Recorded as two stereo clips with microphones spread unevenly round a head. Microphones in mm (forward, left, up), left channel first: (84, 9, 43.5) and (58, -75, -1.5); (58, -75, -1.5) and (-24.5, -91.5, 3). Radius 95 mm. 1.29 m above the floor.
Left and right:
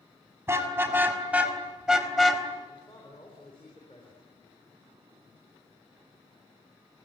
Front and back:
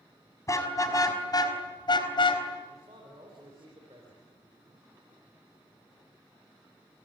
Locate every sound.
0.5 s a car horn: 40° right, 5 m; by 2.4 s 5° right, 3.5 m
2.7 s a man speaking: 135° left, 4 m